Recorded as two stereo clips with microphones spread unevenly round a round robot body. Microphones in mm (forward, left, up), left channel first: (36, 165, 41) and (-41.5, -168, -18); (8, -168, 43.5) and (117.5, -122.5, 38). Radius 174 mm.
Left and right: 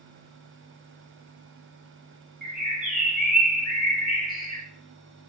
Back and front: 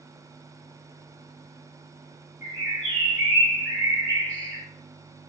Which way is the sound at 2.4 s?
170° left.